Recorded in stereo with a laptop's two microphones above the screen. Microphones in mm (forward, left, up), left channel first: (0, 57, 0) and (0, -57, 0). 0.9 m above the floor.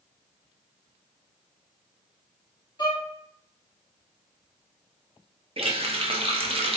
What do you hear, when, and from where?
2.8 s a violin: 35° left (ahead or behind), 2.5 m
5.6 s a running tap: 55° right (ahead or behind), 0.7 m